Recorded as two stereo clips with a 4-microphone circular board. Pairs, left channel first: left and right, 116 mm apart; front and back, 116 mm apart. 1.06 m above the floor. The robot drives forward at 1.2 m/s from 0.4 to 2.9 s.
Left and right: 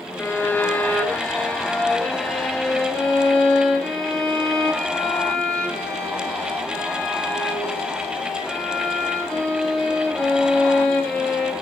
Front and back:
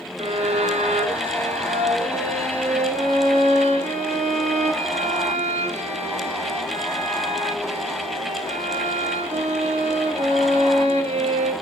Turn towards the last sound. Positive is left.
turn(degrees=170)